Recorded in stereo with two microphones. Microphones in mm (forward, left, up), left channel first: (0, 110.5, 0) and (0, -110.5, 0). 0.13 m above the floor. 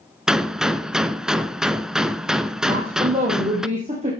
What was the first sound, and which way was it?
A gunshot, 5° right (ahead or behind).